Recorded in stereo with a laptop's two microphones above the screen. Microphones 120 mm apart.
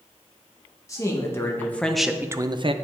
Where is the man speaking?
25° left (ahead or behind), 1.4 m; by 2.7 s 45° right (ahead or behind), 0.6 m.